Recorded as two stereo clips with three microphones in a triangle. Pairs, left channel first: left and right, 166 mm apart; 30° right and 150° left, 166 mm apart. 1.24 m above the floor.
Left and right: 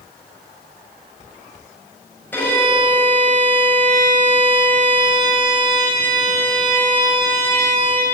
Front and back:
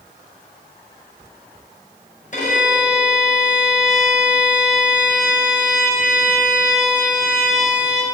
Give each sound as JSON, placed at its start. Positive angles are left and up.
{"t": 2.3, "sound": "a violin", "azimuth_deg": 10, "distance_m": 5.5}